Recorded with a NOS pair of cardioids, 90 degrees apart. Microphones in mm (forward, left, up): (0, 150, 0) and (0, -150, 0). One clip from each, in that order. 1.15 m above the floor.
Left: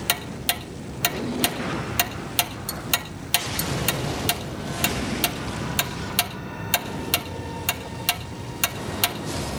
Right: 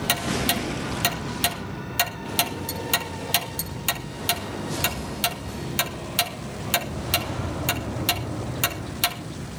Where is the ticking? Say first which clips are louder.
Right 2 dB; 10° left, 1.9 m.